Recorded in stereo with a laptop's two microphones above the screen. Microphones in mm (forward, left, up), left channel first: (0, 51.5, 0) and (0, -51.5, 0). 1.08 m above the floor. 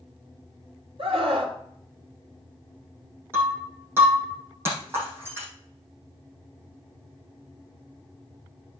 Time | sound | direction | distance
1.0 | a scream | 70° right (ahead or behind) | 2.5 m
3.3 | breaking glass | 25° right (ahead or behind) | 5.5 m